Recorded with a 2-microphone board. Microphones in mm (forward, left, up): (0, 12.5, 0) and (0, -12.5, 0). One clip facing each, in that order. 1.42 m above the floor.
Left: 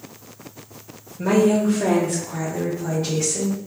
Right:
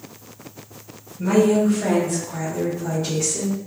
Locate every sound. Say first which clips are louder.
1.2 s a woman speaking: right 1 dB; 65° left (ahead or behind), 0.7 m; by 3.6 s 5° left (ahead or behind), 1.5 m